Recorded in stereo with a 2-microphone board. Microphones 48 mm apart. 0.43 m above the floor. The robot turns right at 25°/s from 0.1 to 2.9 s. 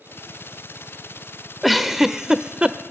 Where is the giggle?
Centre (ahead or behind), 0.7 m; by 2.8 s 25° right (ahead or behind), 0.7 m.